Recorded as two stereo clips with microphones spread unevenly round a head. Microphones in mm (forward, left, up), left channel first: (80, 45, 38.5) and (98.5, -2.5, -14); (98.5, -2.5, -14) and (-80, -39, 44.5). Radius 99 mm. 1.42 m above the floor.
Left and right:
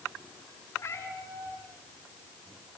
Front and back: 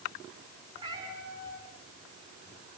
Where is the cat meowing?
125° left, 8 m.